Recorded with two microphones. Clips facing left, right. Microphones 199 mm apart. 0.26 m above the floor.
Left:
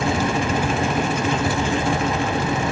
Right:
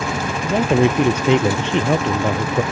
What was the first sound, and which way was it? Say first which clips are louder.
A man speaking: right 6 dB; 75° right (ahead or behind).